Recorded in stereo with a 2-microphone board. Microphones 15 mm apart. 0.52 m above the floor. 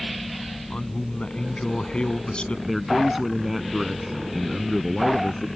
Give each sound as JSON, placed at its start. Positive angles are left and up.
{"t": 0.7, "sound": "a man speaking", "side_deg": 75}
{"t": 2.7, "sound": "a man speaking", "side_deg": -15}